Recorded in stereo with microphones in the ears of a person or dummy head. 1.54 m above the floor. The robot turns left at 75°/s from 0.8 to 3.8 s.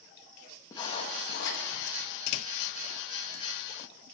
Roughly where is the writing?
Behind.